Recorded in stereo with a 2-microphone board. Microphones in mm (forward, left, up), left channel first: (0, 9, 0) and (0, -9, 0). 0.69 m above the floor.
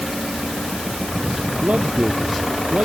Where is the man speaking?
85° right; by 2.9 s 90° right.